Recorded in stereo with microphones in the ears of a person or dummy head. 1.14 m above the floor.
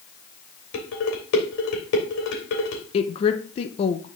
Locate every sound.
0.7 s dishes clattering: 70° left (ahead or behind), 2.5 m
2.9 s a woman speaking: 30° left (ahead or behind), 0.9 m